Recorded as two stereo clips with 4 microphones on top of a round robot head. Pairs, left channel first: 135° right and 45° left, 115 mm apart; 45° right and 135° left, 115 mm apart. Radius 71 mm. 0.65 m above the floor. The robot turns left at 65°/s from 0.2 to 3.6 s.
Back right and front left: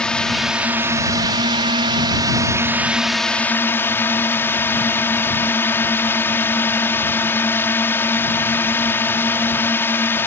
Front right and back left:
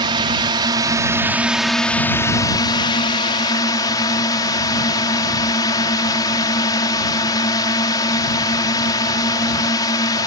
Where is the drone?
145° left; by 10.3 s 75° right.